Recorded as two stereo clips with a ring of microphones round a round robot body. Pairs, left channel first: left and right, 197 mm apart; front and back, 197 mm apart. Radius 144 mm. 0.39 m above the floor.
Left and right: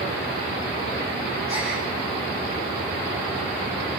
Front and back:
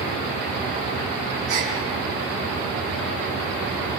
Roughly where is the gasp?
Behind.